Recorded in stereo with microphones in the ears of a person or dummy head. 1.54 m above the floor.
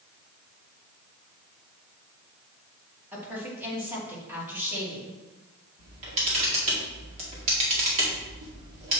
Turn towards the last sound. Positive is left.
turn(degrees=-40)  # may be behind; listen again after turning